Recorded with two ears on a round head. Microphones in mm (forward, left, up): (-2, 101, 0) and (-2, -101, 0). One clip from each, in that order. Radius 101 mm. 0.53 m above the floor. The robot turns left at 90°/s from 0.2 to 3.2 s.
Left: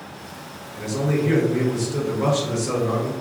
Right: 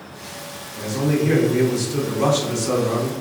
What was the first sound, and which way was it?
A man speaking, 30° left.